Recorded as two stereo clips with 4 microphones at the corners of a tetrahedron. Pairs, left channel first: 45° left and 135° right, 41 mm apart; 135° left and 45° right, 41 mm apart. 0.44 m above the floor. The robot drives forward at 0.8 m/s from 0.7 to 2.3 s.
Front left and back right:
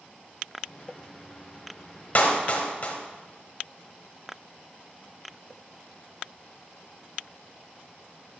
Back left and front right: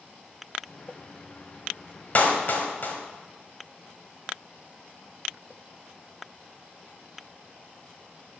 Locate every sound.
2.1 s a clap: 90° left, 1.4 m; by 3.0 s 95° left, 1.4 m